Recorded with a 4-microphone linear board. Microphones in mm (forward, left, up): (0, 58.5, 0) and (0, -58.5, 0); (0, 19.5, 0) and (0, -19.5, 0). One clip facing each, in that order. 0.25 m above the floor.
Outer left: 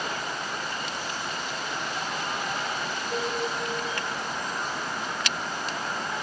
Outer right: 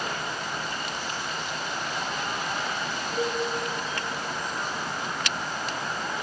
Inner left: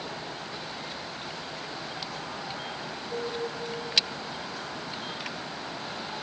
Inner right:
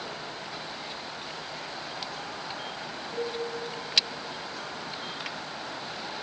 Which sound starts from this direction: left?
A cowbell, at 3.1 s.